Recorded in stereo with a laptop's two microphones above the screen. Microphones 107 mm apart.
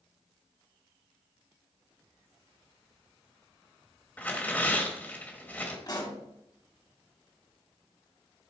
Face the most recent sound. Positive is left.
turn(degrees=40)  # may be behind; listen again after turning